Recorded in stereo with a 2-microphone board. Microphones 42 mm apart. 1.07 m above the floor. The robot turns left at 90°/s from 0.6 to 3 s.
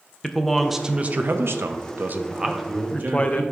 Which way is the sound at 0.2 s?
Straight ahead.